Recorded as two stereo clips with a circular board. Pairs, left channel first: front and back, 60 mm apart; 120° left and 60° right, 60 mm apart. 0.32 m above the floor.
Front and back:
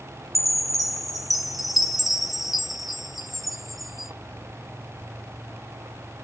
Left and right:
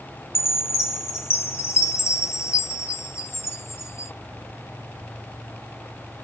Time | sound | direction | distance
0.3 | a chime | 90° left | 0.8 m